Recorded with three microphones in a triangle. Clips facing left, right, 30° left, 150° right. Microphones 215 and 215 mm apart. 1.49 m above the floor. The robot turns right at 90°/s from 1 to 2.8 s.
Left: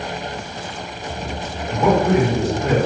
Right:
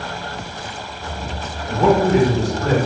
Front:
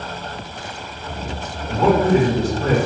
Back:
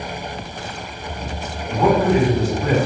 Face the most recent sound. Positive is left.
turn(degrees=35)